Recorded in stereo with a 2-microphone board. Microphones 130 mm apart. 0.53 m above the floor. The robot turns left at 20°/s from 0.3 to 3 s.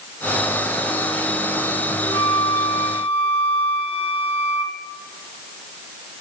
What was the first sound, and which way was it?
A flute, 30° left (ahead or behind).